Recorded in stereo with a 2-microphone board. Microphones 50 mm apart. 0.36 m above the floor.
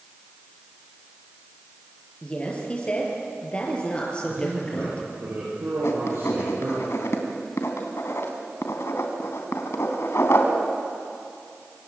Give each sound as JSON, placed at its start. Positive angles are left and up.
{"t": 2.2, "sound": "a woman speaking", "side_deg": 25, "distance_m": 7.0}
{"t": 4.3, "sound": "a man speaking", "side_deg": -60, "distance_m": 10.0}
{"t": 5.8, "sound": "writing", "side_deg": 65, "distance_m": 3.0}